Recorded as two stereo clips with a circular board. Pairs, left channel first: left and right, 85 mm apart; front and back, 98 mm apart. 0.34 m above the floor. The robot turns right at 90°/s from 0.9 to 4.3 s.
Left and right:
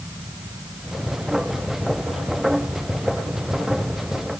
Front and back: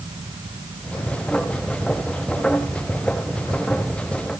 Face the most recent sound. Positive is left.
No sound to turn to.